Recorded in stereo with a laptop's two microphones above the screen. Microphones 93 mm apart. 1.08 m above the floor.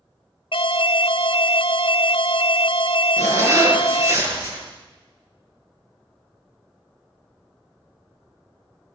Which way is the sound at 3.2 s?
35° right (ahead or behind).